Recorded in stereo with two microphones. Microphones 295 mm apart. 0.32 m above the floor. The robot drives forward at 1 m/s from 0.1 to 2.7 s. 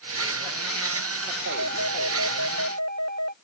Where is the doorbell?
65° right (ahead or behind); by 3.3 s 70° right (ahead or behind).